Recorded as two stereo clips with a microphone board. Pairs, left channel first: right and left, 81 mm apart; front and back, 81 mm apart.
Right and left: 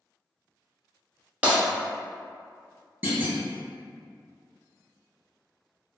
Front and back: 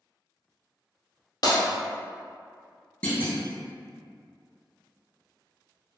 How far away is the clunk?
About 0.8 m.